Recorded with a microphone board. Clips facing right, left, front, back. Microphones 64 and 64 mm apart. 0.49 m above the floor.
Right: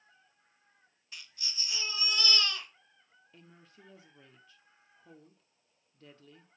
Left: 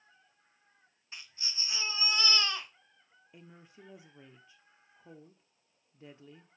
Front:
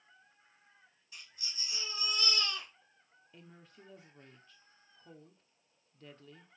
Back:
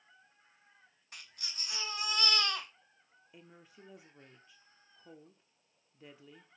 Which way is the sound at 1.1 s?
150° left.